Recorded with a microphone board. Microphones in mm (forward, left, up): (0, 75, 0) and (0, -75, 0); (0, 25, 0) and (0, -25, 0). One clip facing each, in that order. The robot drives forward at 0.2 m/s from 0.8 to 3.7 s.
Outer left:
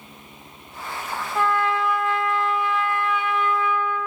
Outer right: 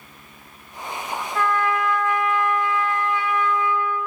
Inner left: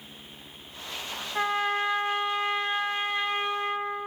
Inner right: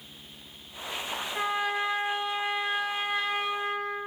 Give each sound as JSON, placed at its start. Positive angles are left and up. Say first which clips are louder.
{"t": 1.4, "sound": "a trumpet", "louder": "even, inner left 3 dB", "side_deg": 20, "distance_m": 1.1}